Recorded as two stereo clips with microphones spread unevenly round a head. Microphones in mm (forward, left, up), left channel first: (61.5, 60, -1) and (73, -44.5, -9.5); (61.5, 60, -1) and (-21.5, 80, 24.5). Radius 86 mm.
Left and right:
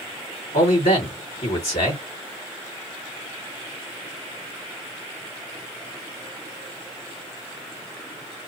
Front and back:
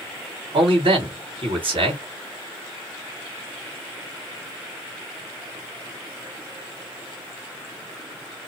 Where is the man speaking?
150° left, 2.0 m.